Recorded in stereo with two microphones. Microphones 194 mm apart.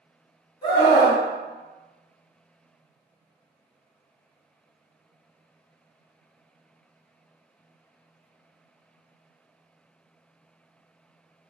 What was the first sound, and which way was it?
A scream, 20° left (ahead or behind).